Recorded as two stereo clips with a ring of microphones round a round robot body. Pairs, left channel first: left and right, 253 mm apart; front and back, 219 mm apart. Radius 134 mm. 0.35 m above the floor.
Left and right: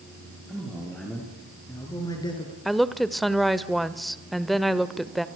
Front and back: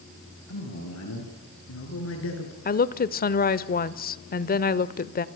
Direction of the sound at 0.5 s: Straight ahead.